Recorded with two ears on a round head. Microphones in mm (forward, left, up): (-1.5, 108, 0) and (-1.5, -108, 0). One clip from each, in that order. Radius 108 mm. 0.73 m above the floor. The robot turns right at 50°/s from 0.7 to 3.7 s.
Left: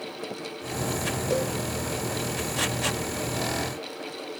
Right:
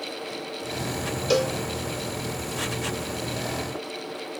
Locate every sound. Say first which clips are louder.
1.3 s a cowbell: right 6 dB; 65° right (ahead or behind), 0.6 m; by 1.6 s 60° right (ahead or behind), 0.6 m